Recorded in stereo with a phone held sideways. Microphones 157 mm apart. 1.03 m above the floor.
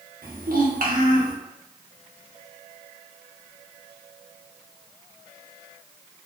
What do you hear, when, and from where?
0.2 s a child speaking: 65° right (ahead or behind), 0.7 m